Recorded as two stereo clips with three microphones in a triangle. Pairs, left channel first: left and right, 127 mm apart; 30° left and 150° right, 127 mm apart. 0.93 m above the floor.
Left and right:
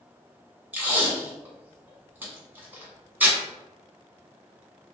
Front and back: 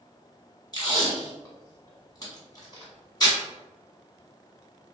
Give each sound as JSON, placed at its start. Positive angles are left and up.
{"t": 0.7, "sound": "tape being pulled", "azimuth_deg": -15, "distance_m": 1.2}